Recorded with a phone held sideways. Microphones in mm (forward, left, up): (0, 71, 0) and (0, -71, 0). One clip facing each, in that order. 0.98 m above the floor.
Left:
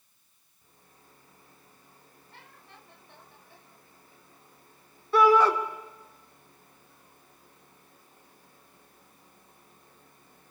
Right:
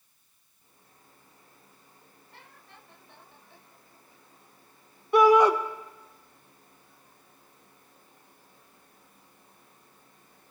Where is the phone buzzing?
No phone buzzing in this recording.